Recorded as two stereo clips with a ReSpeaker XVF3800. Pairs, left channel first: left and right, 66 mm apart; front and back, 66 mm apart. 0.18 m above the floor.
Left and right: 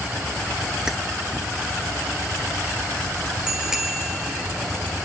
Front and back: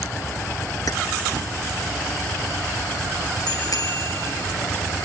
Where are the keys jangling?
10° right, 1.9 m.